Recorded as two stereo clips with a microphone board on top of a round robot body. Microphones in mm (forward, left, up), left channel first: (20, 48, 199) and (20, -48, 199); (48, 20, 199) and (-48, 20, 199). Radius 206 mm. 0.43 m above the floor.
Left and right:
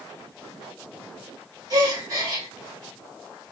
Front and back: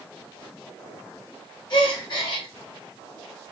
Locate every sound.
1.7 s a gasp: 40° right, 1.6 m